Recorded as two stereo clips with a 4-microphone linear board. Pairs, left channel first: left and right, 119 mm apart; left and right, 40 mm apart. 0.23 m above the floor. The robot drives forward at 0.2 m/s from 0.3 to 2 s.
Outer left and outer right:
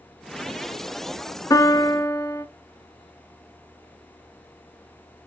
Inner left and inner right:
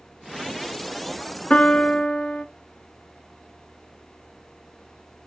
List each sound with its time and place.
1.5 s a piano: 30° left (ahead or behind), 0.5 m; by 2.5 s 25° left (ahead or behind), 0.6 m